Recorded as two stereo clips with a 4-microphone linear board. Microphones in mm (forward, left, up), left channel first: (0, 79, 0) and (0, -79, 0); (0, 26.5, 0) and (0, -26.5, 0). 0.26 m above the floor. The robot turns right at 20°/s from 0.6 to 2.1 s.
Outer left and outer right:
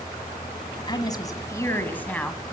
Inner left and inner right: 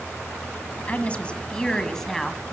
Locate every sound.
0.9 s a woman speaking: 30° left (ahead or behind), 1.5 m; by 2.4 s 10° left (ahead or behind), 1.5 m